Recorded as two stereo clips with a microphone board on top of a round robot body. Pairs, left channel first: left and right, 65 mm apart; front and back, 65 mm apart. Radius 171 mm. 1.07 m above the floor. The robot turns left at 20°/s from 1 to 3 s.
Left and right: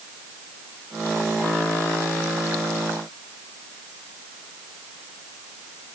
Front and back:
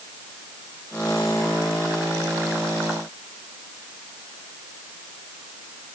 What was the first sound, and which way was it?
Only background noise.